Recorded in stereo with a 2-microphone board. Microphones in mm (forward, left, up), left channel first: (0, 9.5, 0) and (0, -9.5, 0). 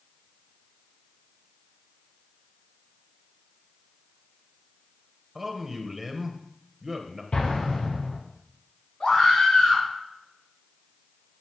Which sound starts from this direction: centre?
A man speaking, at 5.3 s.